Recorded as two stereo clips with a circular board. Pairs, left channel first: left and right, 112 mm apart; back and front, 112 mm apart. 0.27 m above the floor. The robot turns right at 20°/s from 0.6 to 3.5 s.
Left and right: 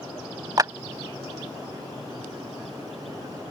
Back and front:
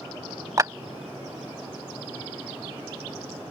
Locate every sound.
0.6 s a clap: 45° right